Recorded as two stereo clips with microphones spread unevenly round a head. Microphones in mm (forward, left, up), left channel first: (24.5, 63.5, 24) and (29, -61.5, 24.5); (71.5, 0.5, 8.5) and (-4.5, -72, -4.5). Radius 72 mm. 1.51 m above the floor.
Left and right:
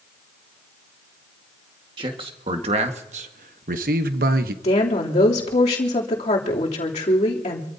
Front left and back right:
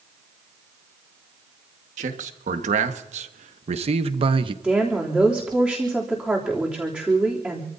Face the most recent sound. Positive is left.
turn(degrees=140)